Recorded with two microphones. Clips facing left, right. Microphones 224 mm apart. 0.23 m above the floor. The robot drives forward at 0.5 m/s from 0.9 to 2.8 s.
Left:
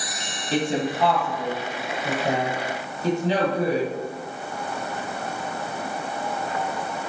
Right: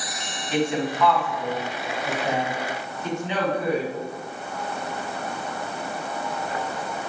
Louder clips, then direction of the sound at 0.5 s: Even; 30° left (ahead or behind).